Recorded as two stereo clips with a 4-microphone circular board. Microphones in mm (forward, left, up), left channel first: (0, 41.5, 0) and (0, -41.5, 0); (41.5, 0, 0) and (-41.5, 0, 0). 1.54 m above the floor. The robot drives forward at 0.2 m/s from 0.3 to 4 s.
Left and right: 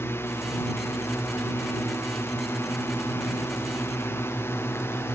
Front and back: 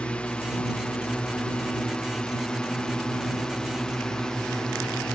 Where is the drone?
65° left; by 5.2 s 75° left.